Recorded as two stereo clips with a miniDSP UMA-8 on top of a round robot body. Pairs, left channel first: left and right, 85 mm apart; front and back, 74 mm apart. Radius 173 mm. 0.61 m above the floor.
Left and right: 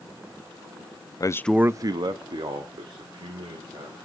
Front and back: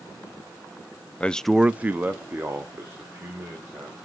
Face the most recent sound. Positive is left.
turn(degrees=-115)